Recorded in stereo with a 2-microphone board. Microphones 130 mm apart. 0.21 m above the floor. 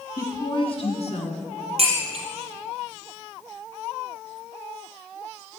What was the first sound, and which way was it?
A woman speaking, 25° left (ahead or behind).